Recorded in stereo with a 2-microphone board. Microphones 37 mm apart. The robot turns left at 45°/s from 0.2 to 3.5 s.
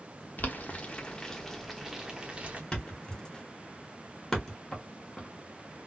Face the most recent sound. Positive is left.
turn(degrees=15)  # may be behind; listen again after turning